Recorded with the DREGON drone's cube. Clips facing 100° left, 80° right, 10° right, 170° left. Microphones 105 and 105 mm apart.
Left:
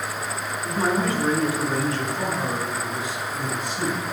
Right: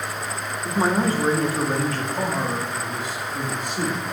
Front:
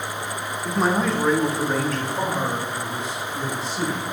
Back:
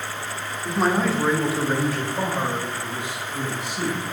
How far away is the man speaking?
About 0.8 m.